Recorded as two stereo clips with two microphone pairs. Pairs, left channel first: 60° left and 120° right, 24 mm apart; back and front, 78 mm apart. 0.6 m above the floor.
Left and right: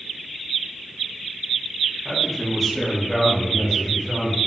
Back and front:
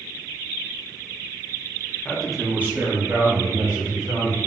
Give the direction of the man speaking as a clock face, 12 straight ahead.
8 o'clock.